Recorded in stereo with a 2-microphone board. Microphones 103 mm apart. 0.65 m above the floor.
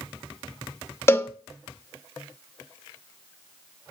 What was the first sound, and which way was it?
A cowbell, 25° left (ahead or behind).